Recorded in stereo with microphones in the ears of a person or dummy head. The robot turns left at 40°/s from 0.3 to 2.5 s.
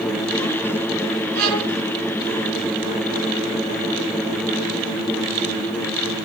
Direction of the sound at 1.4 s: 65° right (ahead or behind).